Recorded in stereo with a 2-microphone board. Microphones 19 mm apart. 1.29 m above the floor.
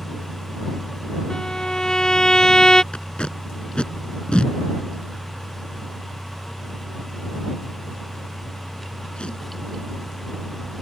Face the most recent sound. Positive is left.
turn(degrees=55)  # may be behind; listen again after turning